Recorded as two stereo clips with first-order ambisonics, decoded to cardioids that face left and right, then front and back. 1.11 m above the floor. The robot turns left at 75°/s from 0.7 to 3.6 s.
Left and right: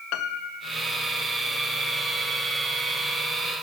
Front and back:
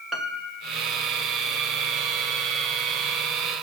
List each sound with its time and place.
0.1 s a piano: 100° left, 0.9 m; by 0.8 s 95° left, 0.9 m